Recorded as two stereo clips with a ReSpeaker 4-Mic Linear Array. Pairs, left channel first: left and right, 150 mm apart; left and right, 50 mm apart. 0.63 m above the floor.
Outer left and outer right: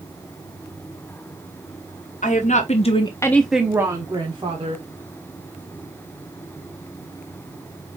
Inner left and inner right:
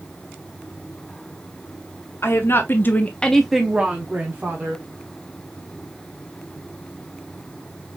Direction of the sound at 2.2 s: 55° left (ahead or behind).